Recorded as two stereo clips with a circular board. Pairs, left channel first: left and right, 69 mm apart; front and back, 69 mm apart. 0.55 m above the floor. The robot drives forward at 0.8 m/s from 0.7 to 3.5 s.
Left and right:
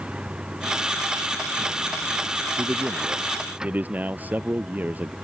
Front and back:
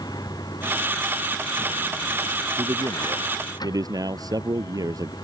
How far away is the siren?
No siren in this recording.